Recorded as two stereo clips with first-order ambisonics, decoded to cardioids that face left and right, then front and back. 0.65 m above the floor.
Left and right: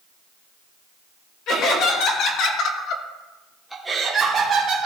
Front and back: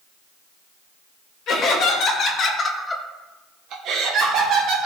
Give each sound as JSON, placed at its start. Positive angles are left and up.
{"t": 1.5, "sound": "laughter", "azimuth_deg": 50, "distance_m": 2.0}